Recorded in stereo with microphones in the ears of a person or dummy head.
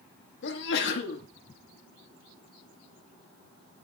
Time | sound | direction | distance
0.4 | a sneeze | 70° left (ahead or behind) | 1.5 m